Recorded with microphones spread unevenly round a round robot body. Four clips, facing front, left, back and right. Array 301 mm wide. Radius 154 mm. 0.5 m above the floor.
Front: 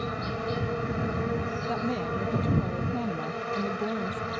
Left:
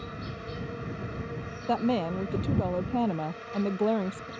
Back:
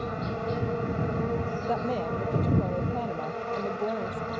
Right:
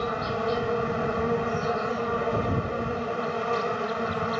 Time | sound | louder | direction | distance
0.0 | an insect | right 12 dB, even | 75° right | ?
1.7 | a woman speaking | even, back 2 dB | 85° left | ?